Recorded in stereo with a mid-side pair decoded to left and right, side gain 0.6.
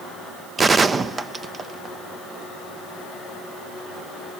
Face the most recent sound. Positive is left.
turn(degrees=-30)